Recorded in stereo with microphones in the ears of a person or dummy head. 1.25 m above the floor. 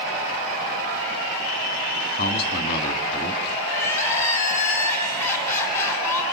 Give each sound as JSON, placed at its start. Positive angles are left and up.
{"t": 2.2, "sound": "a man speaking", "side_deg": 35, "distance_m": 2.0}
{"t": 3.6, "sound": "crying", "side_deg": 15, "distance_m": 5.0}